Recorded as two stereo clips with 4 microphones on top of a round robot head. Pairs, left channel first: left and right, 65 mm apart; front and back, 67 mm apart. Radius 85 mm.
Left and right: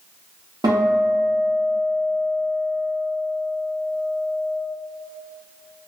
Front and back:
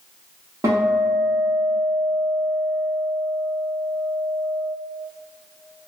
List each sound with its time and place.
0.6 s a guitar: 120° right, 1.0 m